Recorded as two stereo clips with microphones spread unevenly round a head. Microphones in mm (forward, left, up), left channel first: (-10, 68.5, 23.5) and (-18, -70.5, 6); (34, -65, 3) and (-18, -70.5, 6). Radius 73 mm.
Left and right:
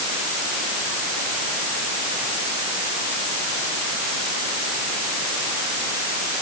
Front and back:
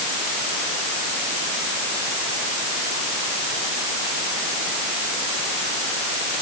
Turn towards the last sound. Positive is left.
No sound to turn to.